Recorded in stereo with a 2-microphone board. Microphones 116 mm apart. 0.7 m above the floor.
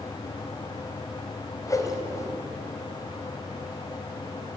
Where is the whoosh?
30° left (ahead or behind), 3.5 m.